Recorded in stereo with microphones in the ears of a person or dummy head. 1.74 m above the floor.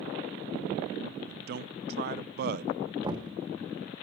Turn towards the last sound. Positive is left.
turn(degrees=-25)  # may be behind; listen again after turning